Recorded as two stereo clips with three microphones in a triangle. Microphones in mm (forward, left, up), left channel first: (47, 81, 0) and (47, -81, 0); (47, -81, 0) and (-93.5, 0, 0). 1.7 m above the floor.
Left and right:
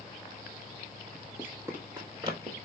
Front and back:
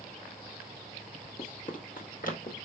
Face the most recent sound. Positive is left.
turn(degrees=-35)